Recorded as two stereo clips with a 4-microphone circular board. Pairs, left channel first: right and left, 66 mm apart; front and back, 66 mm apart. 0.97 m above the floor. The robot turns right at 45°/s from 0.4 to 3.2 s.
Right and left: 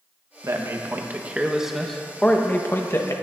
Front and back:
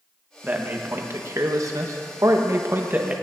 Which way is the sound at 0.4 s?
120° left.